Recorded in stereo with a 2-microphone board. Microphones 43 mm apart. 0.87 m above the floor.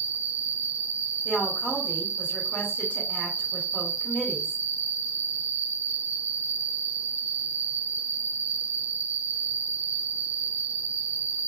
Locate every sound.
0.0 s an insect: 40° right (ahead or behind), 0.8 m
1.2 s a woman speaking: 40° left (ahead or behind), 1.4 m